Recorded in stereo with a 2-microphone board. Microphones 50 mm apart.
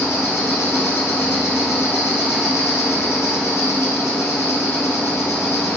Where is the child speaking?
I don't hear a child speaking.